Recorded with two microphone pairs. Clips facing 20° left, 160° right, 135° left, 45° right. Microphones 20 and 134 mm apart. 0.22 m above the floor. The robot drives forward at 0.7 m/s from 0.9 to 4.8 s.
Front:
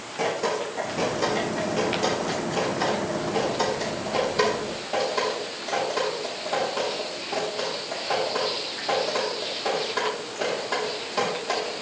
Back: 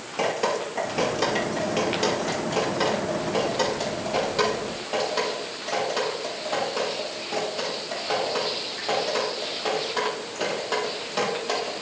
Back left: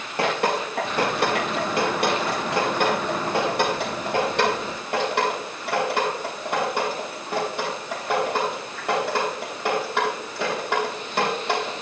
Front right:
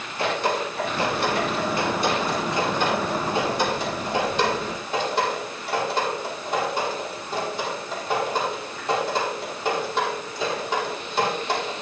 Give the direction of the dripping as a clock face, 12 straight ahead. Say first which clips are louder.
Back 1 dB, back left 1 dB; 7 o'clock.